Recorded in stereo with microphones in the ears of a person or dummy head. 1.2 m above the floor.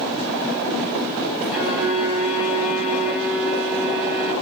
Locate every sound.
1.5 s a violin: centre (ahead or behind), 5 m